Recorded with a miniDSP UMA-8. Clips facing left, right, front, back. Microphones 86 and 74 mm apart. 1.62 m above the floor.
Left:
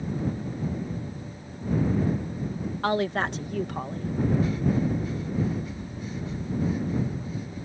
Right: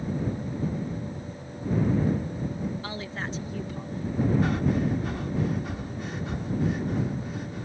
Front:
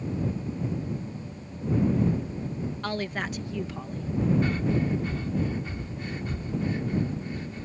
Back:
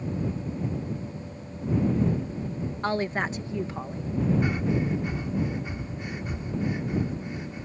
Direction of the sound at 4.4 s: 105° right.